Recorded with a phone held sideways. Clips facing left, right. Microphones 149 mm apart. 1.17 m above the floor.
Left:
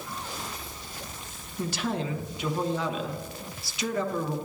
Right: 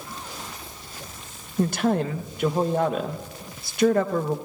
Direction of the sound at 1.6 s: 50° right (ahead or behind).